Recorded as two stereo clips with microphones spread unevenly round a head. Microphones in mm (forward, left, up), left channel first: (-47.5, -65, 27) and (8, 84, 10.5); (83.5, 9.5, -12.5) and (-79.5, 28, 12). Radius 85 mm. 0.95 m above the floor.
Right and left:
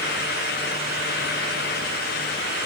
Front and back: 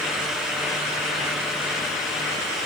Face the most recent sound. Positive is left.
No sound to turn to.